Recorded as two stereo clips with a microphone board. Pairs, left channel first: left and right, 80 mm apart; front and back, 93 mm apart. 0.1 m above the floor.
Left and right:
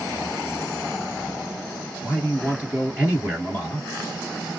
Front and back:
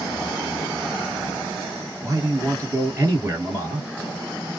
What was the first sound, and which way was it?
A man speaking, 150° right.